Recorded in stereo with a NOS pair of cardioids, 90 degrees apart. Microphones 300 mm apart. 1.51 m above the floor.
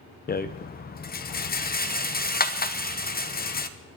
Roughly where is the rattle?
Ahead left.